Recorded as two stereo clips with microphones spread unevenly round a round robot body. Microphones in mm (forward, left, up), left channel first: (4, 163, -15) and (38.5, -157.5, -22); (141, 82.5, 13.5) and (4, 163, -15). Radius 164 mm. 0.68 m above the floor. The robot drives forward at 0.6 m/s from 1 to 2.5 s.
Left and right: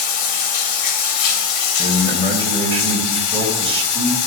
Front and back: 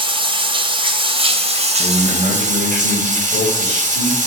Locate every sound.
0.0 s running water: 95° left, 2.5 m; by 4.3 s 115° left, 2.5 m
1.8 s a man speaking: 155° right, 3 m